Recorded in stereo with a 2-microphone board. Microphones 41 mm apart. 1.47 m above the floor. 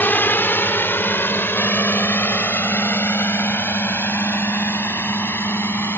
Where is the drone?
55° left (ahead or behind); by 6.0 s 70° left (ahead or behind).